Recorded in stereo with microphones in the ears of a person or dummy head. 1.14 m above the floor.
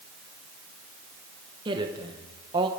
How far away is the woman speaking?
About 1.0 m.